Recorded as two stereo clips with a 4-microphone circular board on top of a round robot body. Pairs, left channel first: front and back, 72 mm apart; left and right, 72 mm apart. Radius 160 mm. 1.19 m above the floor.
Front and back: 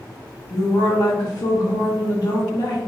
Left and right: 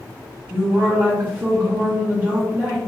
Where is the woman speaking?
30° right, 1.4 m.